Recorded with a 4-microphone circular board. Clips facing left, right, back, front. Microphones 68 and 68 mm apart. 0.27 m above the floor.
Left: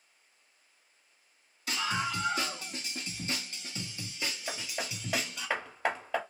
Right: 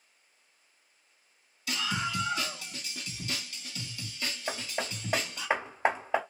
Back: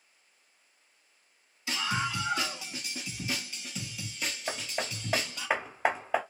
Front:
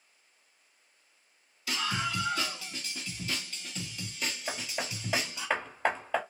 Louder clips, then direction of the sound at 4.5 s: Right 3 dB, back 1 dB; 120° right.